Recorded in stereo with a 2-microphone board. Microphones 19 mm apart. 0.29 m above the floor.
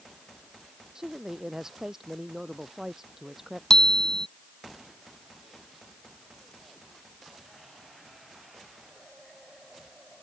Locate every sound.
0.9 s a man speaking: 35° right (ahead or behind); by 3.6 s 25° right (ahead or behind)
3.7 s a bicycle bell: 40° left (ahead or behind)